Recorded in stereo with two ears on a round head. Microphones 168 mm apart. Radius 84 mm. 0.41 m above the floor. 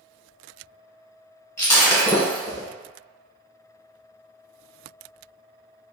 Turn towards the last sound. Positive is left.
turn(degrees=15)  # may be behind; listen again after turning